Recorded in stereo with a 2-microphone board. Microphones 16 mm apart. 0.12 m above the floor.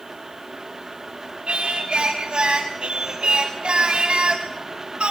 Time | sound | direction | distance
1.5 | singing | 85° right | 3.5 m